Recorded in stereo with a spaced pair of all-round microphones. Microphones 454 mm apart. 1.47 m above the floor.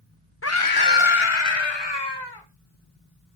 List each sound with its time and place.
0.4 s a scream: 30° left (ahead or behind), 0.9 m; by 2.5 s 55° left (ahead or behind), 2 m